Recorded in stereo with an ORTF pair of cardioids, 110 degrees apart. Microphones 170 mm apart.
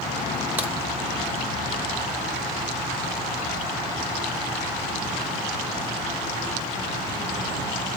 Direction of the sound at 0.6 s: 10° right.